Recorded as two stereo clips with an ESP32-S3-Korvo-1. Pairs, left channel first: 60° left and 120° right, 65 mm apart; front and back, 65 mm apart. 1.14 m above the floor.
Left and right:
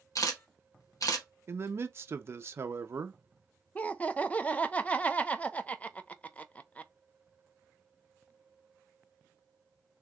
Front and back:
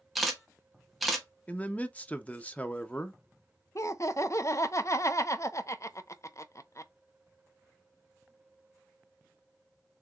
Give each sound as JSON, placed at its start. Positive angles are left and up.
{"t": 0.1, "sound": "a camera shutter", "azimuth_deg": 90, "distance_m": 1.4}
{"t": 1.5, "sound": "a man speaking", "azimuth_deg": -70, "distance_m": 0.7}
{"t": 3.8, "sound": "laughter", "azimuth_deg": 0, "distance_m": 0.6}